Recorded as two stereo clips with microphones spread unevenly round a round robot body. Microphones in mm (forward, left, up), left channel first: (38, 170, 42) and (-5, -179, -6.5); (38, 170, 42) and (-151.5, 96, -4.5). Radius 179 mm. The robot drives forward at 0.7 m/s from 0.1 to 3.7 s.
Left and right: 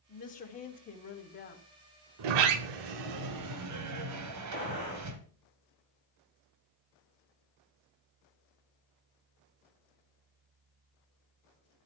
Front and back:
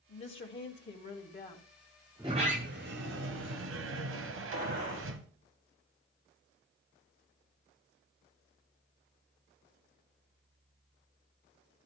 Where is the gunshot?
140° right, 7.5 m.